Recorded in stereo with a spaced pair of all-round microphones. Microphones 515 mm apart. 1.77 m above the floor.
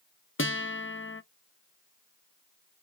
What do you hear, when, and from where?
0.4 s a guitar: 25° left (ahead or behind), 0.6 m